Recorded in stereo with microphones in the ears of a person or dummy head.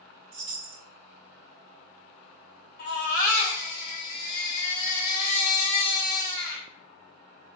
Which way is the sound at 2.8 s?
50° left (ahead or behind).